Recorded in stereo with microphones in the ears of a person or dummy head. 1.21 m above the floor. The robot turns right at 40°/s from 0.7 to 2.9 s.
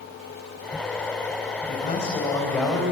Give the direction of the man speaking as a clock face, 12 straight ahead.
8 o'clock.